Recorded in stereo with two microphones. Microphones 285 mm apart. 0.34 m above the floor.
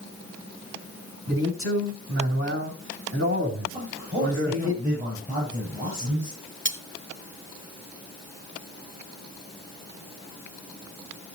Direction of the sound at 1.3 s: 50° right (ahead or behind).